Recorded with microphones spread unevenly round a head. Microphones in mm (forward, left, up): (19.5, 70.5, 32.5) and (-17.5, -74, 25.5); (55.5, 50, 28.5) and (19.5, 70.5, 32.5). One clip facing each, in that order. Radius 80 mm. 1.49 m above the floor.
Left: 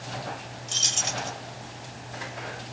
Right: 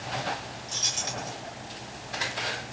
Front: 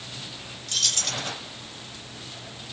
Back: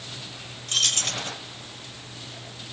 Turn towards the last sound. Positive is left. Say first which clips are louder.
# left 4 dB, back 3 dB
turn(degrees=125)